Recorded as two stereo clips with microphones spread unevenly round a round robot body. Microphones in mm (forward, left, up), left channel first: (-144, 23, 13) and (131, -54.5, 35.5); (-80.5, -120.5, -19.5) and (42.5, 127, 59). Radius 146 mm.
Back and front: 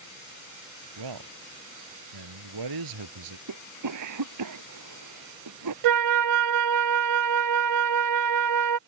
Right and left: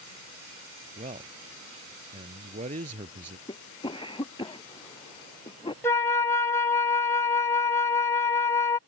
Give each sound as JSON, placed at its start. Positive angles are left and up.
{"t": 1.0, "sound": "a man speaking", "azimuth_deg": -5}
{"t": 3.5, "sound": "a cough", "azimuth_deg": -40}
{"t": 5.8, "sound": "a flute", "azimuth_deg": -40}